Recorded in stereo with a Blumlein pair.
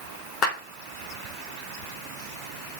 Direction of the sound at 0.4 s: 25° left.